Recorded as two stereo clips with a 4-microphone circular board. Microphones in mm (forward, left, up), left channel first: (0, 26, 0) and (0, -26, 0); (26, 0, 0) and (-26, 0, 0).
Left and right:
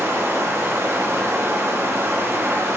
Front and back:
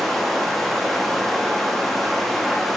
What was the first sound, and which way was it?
Running water, 85° right.